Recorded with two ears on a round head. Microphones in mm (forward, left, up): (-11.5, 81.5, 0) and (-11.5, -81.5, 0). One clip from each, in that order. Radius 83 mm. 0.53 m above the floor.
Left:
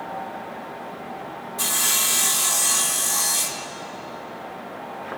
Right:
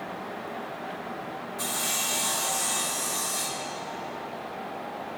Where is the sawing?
30° left (ahead or behind), 0.8 m.